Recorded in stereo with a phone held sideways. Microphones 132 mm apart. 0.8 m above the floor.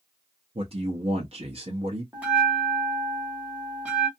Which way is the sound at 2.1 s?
10° right (ahead or behind).